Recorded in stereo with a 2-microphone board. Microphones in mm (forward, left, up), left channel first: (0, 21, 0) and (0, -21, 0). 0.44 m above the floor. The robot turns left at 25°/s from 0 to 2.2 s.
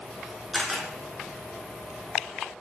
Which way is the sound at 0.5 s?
Centre (ahead or behind).